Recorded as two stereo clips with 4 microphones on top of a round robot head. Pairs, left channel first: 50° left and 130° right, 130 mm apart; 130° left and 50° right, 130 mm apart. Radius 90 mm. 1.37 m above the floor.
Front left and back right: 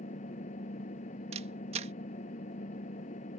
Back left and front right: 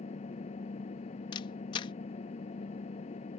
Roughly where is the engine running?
Left.